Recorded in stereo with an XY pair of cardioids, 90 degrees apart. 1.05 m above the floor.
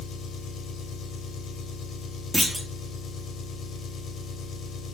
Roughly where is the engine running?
Ahead left.